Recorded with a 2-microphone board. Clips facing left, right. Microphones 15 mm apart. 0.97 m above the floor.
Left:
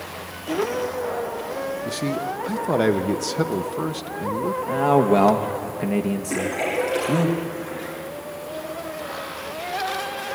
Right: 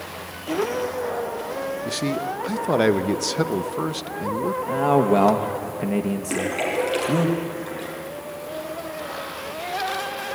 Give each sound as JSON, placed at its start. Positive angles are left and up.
{"t": 1.9, "sound": "a man speaking", "side_deg": -20, "distance_m": 0.6}
{"t": 4.7, "sound": "a man speaking", "side_deg": 5, "distance_m": 0.9}
{"t": 6.3, "sound": "a splash", "side_deg": -55, "distance_m": 6.0}